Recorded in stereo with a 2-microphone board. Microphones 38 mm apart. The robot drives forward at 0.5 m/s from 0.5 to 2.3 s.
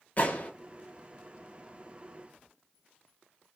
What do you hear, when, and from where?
0.2 s a gunshot: 45° left (ahead or behind), 0.7 m